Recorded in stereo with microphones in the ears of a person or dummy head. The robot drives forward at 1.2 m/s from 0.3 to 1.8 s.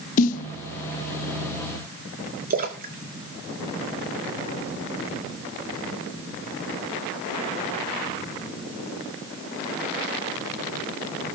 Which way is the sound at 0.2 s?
50° left (ahead or behind).